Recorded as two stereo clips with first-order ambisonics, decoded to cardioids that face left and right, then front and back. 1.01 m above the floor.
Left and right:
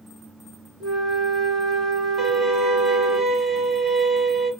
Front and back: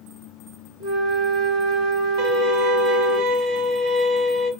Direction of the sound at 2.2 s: 150° right.